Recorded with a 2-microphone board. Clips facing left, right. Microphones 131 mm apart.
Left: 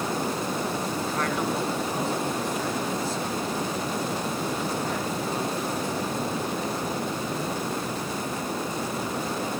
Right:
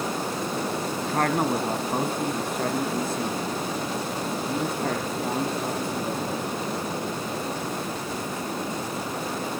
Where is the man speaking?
45° right (ahead or behind), 1.9 m; by 6.4 s 55° right (ahead or behind), 7 m.